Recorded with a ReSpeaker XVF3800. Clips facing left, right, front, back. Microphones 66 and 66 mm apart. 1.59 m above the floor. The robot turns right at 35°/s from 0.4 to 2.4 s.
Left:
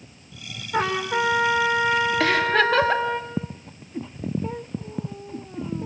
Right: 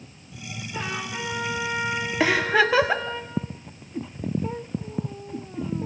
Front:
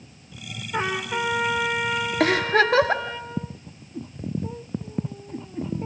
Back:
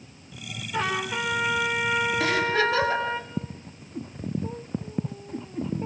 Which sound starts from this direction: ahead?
A giggle, at 2.2 s.